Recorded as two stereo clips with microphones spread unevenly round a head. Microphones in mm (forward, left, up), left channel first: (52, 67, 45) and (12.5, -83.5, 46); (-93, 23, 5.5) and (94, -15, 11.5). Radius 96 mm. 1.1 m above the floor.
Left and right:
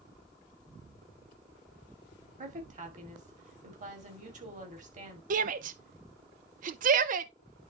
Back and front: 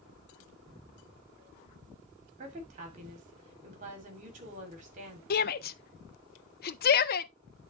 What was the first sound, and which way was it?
A woman speaking, 65° right.